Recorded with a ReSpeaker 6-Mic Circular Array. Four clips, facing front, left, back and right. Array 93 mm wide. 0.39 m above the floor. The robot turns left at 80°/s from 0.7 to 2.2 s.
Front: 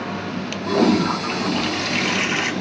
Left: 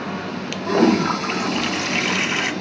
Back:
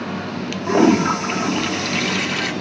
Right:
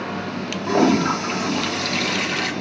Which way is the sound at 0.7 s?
170° left.